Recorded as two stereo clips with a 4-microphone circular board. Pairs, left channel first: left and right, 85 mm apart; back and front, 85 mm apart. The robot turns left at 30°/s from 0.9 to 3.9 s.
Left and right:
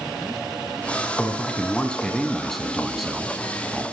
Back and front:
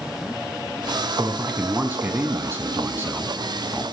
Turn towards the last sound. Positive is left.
turn(degrees=-35)